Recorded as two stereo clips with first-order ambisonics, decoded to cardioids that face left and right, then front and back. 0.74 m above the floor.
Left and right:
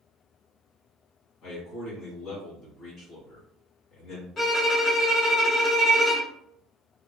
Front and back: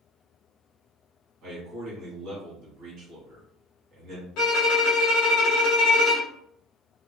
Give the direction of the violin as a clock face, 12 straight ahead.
11 o'clock.